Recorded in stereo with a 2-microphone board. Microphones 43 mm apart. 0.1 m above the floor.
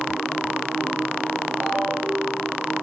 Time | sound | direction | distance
1.6 | a ringtone | 40° right (ahead or behind) | 5.5 m